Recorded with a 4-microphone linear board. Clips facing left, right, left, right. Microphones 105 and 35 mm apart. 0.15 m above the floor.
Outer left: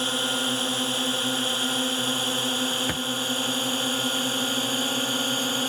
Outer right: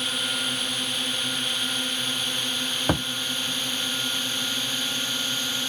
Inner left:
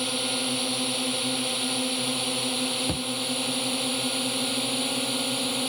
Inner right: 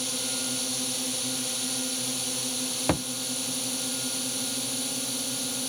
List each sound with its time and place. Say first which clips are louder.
0.0 s a drone: outer left 5 dB, inner left 5 dB; 30° left (ahead or behind); by 5.7 s 35° left (ahead or behind)
2.9 s a thud: outer right 5 dB, inner right 3 dB; 40° right (ahead or behind)